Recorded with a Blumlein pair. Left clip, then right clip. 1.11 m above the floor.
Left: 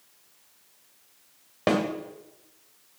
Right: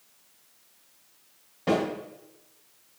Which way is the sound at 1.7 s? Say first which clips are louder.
Left 1 dB; 35° left.